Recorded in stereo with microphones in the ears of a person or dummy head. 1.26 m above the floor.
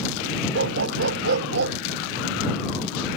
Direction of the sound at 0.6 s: 70° right (ahead or behind).